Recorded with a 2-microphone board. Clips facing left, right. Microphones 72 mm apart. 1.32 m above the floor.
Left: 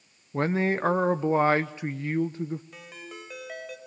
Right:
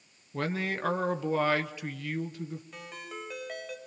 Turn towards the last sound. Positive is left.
turn(degrees=0)  # may be behind; listen again after turning